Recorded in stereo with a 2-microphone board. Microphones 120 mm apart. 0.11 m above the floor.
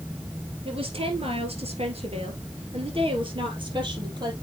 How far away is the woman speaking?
About 2.5 m.